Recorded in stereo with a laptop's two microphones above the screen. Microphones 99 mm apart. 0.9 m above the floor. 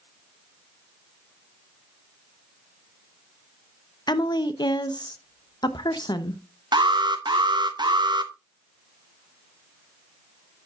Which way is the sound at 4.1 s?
45° left (ahead or behind).